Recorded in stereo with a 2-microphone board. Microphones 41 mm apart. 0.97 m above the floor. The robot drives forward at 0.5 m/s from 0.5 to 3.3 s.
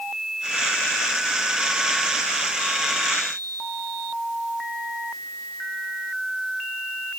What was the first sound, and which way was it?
Only background noise.